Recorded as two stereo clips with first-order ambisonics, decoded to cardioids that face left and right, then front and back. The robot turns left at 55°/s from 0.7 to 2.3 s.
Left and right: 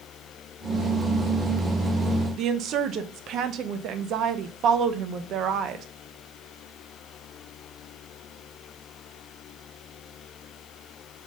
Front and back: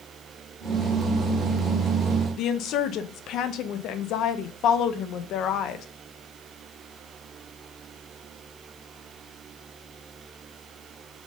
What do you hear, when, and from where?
2.4 s a woman speaking: 40° right, 0.6 m